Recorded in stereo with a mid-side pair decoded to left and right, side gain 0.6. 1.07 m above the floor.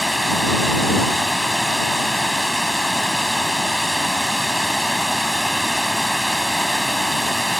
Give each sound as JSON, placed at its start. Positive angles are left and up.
{"t": 0.0, "sound": "running water", "azimuth_deg": 5}